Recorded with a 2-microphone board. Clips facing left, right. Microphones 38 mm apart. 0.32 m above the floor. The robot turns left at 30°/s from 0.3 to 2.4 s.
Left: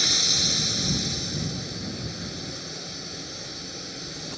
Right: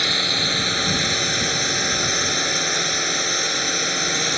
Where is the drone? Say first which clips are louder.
Right 5 dB; 40° right; by 4.4 s 100° right.